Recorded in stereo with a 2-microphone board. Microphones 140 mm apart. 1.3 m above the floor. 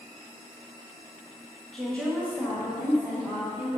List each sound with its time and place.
1.7 s a woman speaking: centre (ahead or behind), 1.6 m; by 3.8 s 30° left (ahead or behind), 3 m